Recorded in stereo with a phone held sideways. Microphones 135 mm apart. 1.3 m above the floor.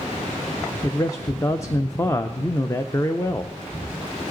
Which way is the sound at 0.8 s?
20° left (ahead or behind).